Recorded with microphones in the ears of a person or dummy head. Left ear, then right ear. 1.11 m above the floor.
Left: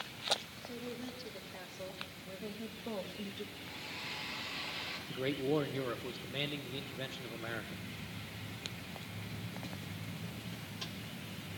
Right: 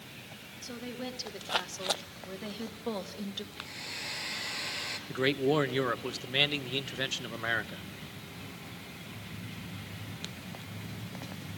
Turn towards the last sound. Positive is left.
turn(degrees=-55)  # may be behind; listen again after turning